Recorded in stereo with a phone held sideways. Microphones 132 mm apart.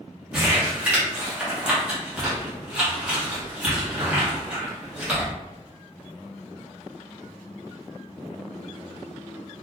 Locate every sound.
0.3 s crumpling: 10° right (ahead or behind), 1.1 m